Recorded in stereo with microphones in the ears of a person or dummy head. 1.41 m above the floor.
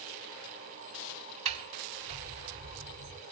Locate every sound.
1.4 s a sliding door: 40° right (ahead or behind), 1.8 m